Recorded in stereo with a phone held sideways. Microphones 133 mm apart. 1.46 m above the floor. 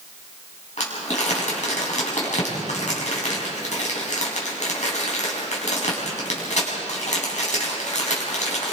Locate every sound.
0.8 s crumpling: 60° left (ahead or behind), 5 m